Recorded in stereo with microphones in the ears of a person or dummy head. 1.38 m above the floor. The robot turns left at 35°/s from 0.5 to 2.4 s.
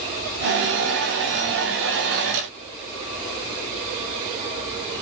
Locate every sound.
Only background noise.